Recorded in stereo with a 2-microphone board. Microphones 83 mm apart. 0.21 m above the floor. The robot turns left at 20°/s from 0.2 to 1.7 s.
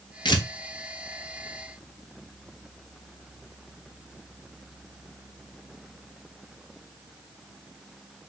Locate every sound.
0.2 s tearing paper: 65° left (ahead or behind), 0.6 m